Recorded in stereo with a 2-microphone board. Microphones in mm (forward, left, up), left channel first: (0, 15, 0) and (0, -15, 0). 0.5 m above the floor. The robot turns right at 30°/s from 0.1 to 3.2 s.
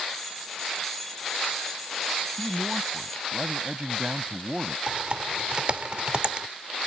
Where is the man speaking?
5° right (ahead or behind); by 4.8 s 25° right (ahead or behind).